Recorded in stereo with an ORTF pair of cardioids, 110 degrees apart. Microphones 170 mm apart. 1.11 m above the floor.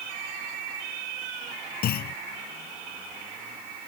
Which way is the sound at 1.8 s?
65° left.